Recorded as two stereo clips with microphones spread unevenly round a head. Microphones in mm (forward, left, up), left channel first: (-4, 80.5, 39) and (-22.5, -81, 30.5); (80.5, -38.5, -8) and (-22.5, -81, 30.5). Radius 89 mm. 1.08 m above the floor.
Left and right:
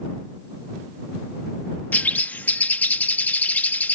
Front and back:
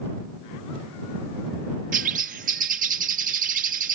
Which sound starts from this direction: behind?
A bird, at 1.9 s.